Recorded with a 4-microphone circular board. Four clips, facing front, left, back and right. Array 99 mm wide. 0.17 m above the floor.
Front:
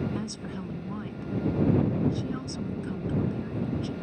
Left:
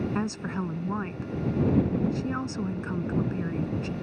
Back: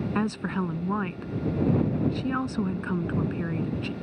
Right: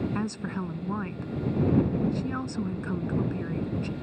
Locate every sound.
0.1 s a woman speaking: 170° left